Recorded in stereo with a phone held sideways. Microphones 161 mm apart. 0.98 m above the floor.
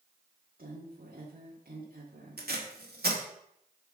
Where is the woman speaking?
65° right (ahead or behind), 1.8 m.